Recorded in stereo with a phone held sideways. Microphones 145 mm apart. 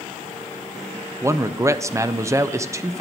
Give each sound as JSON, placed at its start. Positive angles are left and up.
{"t": 1.2, "sound": "a man speaking", "side_deg": -20, "distance_m": 0.5}